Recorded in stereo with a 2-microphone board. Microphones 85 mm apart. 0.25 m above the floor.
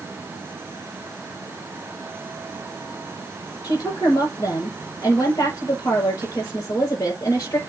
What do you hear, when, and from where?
3.6 s a woman speaking: 35° left (ahead or behind), 5.5 m